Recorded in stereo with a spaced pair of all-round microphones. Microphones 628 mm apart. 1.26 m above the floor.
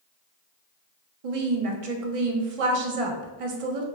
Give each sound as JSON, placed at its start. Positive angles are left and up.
{"t": 1.2, "sound": "a woman speaking", "side_deg": -65, "distance_m": 0.6}